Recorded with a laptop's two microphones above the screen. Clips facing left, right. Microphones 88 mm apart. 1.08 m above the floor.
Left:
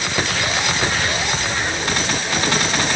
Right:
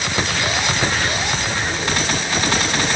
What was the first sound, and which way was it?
Only background noise.